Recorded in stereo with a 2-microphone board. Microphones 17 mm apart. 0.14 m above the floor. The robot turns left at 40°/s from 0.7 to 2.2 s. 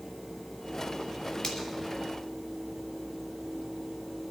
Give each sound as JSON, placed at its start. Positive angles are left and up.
{"t": 1.4, "sound": "a finger snap", "side_deg": 40, "distance_m": 3.0}